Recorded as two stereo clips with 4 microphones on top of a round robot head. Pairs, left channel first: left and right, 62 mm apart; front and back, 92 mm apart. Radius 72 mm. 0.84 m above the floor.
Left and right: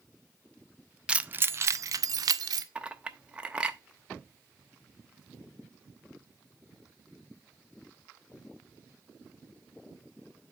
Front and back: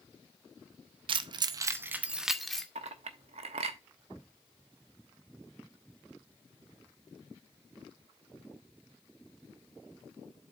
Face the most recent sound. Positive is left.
turn(degrees=-165)